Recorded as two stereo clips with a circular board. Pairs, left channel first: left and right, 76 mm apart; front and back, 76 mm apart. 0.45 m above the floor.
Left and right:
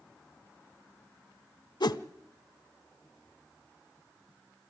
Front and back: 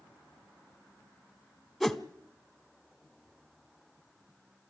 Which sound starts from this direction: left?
A whoosh, at 1.8 s.